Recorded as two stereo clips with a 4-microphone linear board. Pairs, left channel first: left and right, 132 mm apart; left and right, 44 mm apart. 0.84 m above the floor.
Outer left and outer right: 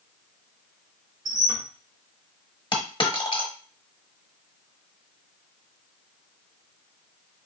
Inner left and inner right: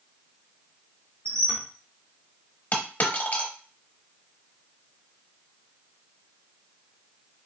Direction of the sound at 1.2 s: 80° right.